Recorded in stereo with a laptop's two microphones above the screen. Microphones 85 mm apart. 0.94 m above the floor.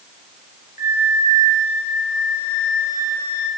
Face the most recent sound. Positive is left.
turn(degrees=-35)  # may be behind; listen again after turning